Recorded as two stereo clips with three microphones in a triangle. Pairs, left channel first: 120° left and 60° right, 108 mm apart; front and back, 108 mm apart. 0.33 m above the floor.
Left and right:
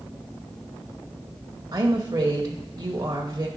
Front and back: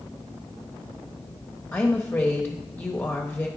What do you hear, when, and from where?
1.7 s a woman speaking: 50° right, 1.0 m